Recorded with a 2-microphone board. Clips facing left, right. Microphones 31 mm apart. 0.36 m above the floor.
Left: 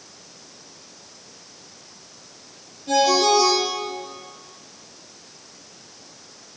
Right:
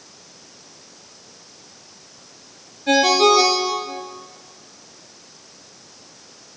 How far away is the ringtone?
About 2.5 m.